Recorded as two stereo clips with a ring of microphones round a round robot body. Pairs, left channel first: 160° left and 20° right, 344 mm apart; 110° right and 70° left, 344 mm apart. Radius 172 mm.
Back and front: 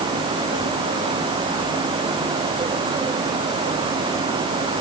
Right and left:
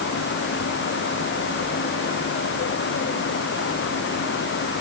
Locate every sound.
Only background noise.